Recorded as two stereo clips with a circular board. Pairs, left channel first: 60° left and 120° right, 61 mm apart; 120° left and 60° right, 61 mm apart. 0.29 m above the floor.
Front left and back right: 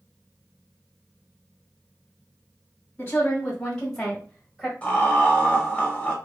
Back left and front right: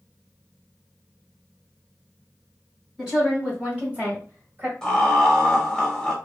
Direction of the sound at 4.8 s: 60° left.